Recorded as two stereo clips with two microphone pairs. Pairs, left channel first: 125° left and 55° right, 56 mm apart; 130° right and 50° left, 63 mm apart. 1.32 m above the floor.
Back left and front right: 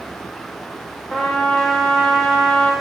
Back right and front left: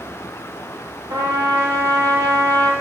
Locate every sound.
1.1 s a trumpet: 50° left, 1.2 m